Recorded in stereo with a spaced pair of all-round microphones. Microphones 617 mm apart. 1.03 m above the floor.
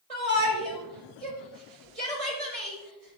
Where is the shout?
70° right (ahead or behind), 5.5 m.